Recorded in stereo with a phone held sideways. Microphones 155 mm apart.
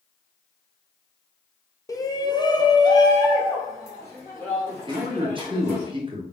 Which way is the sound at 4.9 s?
30° right (ahead or behind).